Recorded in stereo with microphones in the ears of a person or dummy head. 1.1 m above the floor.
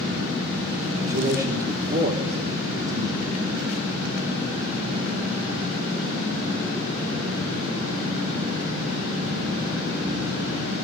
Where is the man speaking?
50° right (ahead or behind), 2.5 m.